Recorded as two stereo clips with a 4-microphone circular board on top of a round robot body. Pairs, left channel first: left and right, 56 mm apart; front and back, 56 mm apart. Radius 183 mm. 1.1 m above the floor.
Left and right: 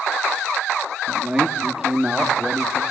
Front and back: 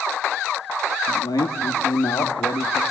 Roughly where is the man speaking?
Ahead.